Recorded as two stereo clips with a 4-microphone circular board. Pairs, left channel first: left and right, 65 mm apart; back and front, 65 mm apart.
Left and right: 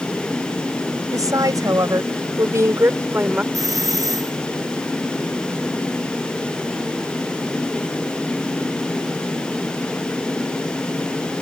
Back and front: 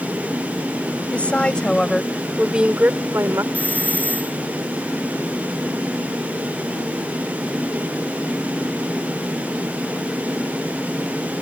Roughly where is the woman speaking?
Right.